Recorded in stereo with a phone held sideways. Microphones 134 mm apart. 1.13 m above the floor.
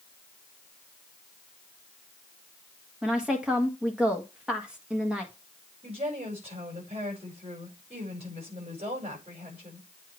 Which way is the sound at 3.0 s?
5° right (ahead or behind).